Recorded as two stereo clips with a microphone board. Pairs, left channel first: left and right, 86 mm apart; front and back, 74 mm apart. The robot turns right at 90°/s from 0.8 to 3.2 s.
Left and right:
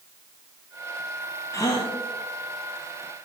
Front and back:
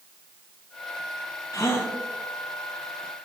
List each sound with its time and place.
1.5 s a gasp: 30° left, 1.0 m; by 1.9 s 70° left, 1.0 m